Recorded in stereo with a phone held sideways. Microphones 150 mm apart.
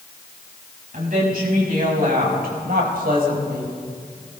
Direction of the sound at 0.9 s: 70° right (ahead or behind).